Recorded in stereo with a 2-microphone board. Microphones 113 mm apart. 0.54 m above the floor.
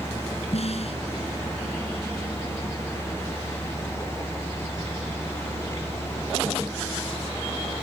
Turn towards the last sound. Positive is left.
turn(degrees=65)  # may be behind; listen again after turning